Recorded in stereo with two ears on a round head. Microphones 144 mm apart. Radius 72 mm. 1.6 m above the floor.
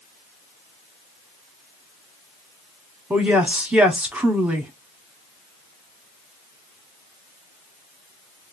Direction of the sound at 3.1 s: 5° right (ahead or behind).